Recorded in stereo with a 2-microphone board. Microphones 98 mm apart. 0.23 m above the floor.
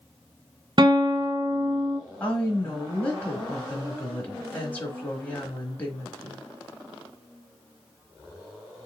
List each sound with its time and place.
0.8 s a guitar: 55° right (ahead or behind), 0.7 m
2.2 s a woman speaking: 15° left (ahead or behind), 1.1 m